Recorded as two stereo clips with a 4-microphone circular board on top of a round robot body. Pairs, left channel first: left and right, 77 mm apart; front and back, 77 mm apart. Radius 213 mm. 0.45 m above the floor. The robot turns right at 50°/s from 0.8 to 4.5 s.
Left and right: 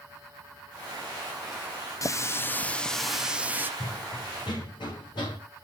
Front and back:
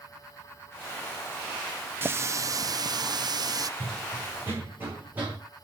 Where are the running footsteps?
95° left, 1.0 m; by 5.4 s 110° left, 2.5 m.